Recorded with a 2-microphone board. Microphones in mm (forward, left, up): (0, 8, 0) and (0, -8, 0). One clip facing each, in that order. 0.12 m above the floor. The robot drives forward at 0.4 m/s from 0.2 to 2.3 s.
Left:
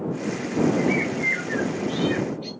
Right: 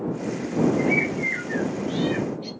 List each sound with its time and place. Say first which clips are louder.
0.8 s a bird: right 1 dB; 5° left (ahead or behind), 0.9 m